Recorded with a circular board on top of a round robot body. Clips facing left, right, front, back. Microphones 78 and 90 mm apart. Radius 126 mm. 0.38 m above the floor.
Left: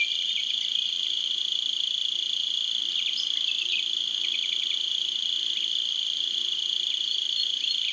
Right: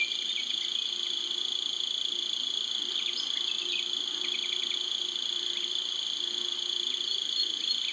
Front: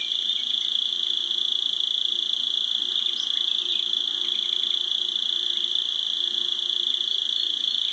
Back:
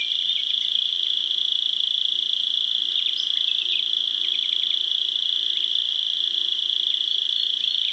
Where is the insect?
50° right, 0.9 m.